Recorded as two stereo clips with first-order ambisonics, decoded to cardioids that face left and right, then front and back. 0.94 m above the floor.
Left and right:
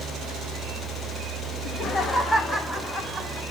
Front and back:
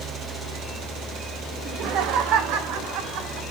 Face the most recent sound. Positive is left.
turn(degrees=175)